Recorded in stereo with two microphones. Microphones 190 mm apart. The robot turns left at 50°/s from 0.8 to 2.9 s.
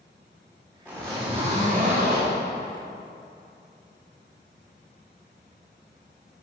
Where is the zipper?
5° right, 2.5 m; by 2.4 s 85° right, 2.5 m.